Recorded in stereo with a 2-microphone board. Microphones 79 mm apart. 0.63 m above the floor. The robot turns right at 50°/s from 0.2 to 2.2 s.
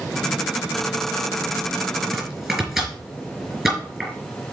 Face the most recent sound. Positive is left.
turn(degrees=-10)  # may be behind; listen again after turning